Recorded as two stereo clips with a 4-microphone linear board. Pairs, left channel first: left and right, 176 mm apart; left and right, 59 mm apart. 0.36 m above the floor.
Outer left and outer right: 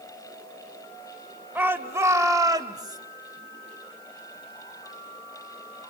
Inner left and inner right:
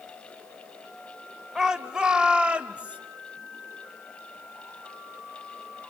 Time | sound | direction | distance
1.6 | a shout | 10° right (ahead or behind) | 1.7 m